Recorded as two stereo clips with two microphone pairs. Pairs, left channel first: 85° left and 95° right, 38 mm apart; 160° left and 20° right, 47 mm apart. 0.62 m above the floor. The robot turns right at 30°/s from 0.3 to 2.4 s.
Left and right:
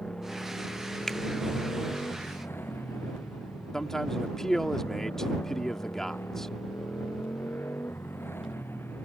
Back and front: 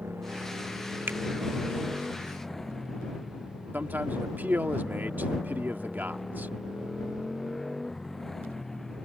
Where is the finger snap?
5° left; by 1.2 s 10° left.